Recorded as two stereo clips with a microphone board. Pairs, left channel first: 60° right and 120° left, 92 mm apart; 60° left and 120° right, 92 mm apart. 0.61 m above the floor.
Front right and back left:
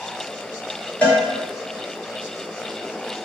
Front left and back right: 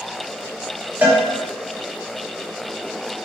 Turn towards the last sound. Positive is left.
turn(degrees=-105)